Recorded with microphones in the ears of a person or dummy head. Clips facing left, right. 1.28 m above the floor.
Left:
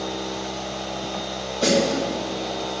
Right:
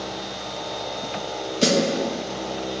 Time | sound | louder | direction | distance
1.6 | a snare drum | even | 35° right (ahead or behind) | 2 m